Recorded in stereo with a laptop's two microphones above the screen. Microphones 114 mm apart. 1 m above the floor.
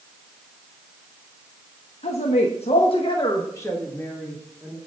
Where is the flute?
No flute in this recording.